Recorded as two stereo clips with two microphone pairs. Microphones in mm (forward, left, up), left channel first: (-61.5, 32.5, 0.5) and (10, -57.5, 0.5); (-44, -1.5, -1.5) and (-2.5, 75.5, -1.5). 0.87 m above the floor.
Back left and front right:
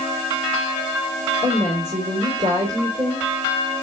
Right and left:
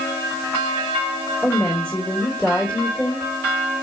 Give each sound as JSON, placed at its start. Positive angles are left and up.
{"t": 1.4, "sound": "a woman speaking", "azimuth_deg": -45, "distance_m": 2.5}